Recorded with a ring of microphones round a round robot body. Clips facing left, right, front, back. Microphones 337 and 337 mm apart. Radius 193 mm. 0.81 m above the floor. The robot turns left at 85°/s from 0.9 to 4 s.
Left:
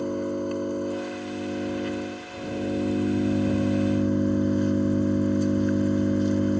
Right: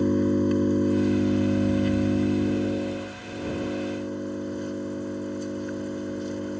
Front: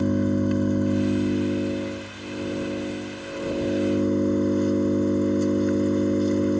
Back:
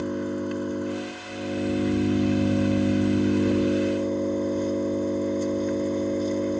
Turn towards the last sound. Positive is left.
turn(degrees=70)